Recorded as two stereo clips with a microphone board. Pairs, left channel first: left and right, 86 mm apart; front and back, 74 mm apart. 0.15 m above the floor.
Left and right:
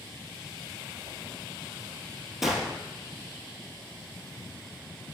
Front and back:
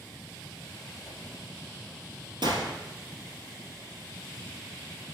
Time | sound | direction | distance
1.1 | a whoosh | 90° right | 1.3 m
2.4 | a gunshot | 175° right | 1.1 m